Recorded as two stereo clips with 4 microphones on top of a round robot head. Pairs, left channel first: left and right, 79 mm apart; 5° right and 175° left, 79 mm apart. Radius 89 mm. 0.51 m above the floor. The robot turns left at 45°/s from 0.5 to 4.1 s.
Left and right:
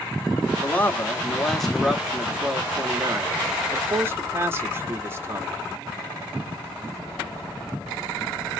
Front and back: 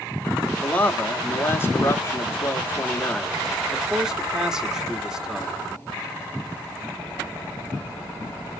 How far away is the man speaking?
About 1.0 m.